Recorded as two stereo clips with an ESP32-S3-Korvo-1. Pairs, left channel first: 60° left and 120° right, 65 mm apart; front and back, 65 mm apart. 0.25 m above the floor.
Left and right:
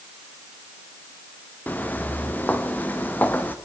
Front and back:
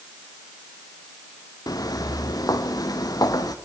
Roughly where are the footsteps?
Ahead.